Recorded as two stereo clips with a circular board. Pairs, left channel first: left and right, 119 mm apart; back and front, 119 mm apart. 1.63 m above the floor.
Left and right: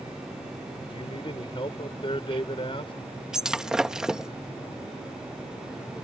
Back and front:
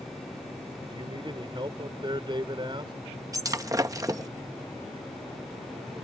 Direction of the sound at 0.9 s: 50° left.